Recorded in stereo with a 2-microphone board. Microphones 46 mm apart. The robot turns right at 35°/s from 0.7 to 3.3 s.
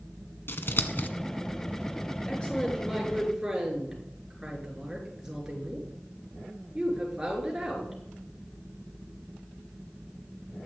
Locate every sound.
0.5 s scissors: 55° left (ahead or behind), 1.2 m; by 1.1 s 40° left (ahead or behind), 1.2 m
2.3 s a woman speaking: 155° left, 6.5 m; by 8.0 s 170° right, 6.5 m